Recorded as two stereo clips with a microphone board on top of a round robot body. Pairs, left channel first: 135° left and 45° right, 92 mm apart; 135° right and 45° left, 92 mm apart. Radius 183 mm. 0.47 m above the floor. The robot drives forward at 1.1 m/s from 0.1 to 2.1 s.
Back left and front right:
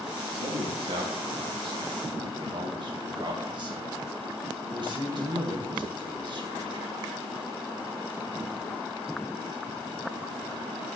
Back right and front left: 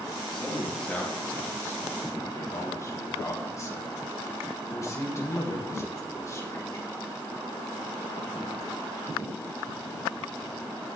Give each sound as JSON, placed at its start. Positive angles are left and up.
{"t": 0.3, "sound": "a man speaking", "azimuth_deg": -50, "distance_m": 4.0}